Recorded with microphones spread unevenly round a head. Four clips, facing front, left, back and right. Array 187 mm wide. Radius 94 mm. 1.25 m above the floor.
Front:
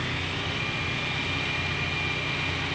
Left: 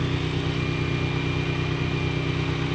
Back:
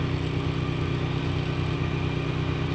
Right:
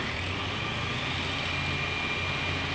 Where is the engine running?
125° left.